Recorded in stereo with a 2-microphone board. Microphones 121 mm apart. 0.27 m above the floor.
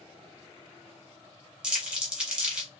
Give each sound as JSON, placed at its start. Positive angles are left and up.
{"t": 1.6, "sound": "crumpling", "side_deg": -10, "distance_m": 1.1}